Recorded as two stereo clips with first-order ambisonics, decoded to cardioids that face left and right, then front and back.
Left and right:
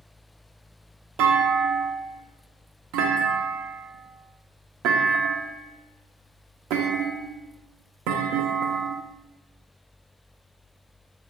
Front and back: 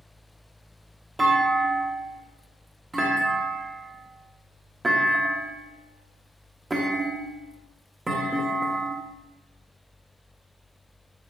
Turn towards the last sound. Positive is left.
turn(degrees=-105)